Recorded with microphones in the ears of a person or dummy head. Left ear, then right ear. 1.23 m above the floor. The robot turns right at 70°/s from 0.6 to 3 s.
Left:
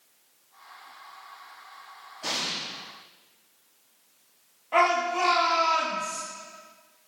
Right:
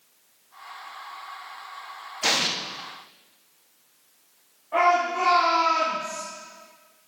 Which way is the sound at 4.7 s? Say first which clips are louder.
Right 2 dB; 45° left (ahead or behind).